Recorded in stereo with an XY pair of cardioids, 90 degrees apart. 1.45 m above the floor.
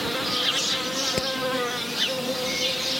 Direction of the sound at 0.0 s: 10° left.